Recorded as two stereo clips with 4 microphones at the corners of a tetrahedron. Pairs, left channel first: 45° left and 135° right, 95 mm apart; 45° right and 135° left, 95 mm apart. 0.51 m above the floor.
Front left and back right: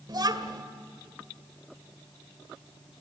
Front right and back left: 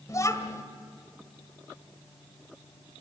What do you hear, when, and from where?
0.1 s a child speaking: 95° right, 2 m